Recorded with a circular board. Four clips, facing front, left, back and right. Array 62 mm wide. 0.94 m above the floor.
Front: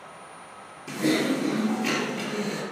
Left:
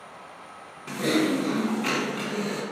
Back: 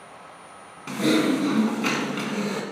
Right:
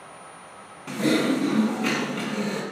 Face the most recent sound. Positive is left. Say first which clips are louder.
# right 2 dB, back 3 dB
turn(degrees=-175)